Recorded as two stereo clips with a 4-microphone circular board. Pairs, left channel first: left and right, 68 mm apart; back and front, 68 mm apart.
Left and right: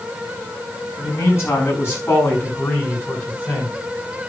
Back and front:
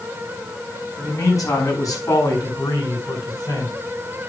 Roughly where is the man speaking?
Behind left.